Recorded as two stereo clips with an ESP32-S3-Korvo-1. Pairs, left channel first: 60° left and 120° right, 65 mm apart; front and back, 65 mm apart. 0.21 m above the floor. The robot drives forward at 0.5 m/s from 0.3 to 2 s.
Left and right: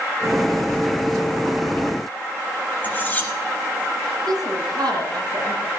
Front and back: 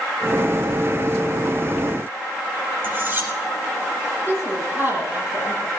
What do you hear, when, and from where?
2.8 s cutlery clinking: 125° left, 3 m
4.3 s a woman speaking: 120° right, 8.5 m